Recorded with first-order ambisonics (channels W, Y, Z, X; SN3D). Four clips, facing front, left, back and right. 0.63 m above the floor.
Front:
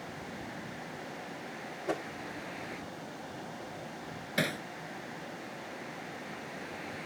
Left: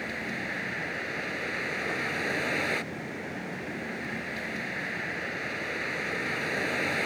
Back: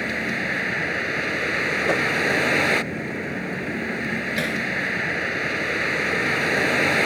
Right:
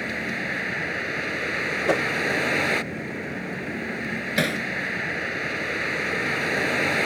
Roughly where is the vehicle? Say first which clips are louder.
Right 6 dB, back 18 dB; behind.